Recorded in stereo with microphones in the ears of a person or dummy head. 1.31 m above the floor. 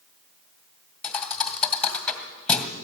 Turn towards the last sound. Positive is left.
turn(degrees=5)  # may be behind; listen again after turning